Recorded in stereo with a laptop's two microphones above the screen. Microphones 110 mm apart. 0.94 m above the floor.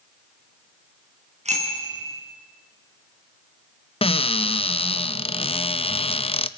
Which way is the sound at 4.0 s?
60° left (ahead or behind).